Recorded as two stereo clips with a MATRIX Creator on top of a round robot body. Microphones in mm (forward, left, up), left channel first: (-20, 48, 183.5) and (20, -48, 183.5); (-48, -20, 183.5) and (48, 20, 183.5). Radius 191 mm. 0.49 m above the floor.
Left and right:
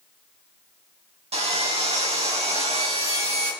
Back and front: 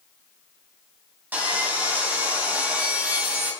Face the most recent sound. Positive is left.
turn(degrees=-50)